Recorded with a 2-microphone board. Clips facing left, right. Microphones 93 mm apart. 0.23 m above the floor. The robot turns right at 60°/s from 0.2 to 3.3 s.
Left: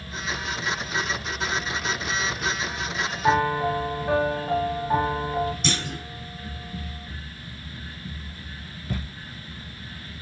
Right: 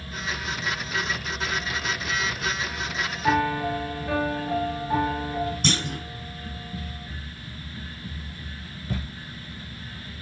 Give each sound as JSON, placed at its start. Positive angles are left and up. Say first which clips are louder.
{"t": 3.2, "sound": "a piano", "louder": "left 2 dB", "side_deg": 30, "distance_m": 0.7}
{"t": 5.6, "sound": "a clunk", "louder": "right 2 dB", "side_deg": -50, "distance_m": 1.6}